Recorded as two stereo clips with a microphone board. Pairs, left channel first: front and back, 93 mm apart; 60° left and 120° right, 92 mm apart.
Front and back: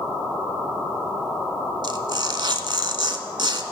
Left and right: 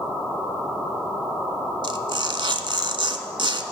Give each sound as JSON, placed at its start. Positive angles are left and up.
{"t": 1.8, "sound": "tearing paper", "azimuth_deg": -145, "distance_m": 0.7}